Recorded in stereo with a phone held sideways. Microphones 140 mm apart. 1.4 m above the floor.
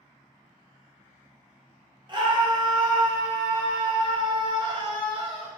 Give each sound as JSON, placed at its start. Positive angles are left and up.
{"t": 2.1, "sound": "a scream", "side_deg": -35, "distance_m": 0.8}